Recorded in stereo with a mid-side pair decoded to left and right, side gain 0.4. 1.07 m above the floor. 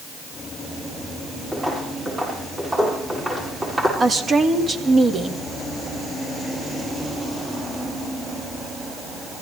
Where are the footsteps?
25° right, 8.5 m.